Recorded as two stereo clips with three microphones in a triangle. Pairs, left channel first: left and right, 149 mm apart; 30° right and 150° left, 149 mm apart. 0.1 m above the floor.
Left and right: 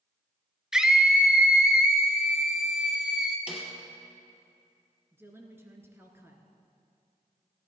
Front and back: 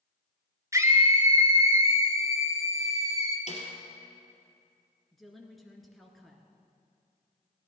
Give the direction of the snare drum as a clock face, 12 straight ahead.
12 o'clock.